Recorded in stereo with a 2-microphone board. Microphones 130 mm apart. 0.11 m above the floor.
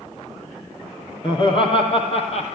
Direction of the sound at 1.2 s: 35° left (ahead or behind).